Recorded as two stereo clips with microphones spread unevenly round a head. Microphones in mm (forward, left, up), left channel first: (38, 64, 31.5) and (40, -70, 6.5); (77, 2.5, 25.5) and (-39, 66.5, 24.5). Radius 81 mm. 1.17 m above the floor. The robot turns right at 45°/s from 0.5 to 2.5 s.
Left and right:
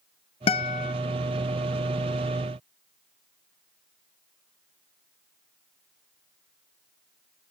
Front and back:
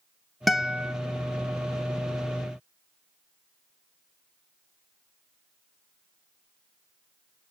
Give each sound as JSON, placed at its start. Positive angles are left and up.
{"t": 0.5, "sound": "a guitar", "azimuth_deg": 60, "distance_m": 0.6}